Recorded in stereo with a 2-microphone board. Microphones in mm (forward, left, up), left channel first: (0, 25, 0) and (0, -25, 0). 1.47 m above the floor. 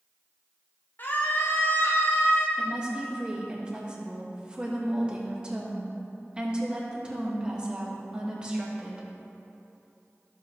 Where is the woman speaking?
20° right (ahead or behind), 1.9 m.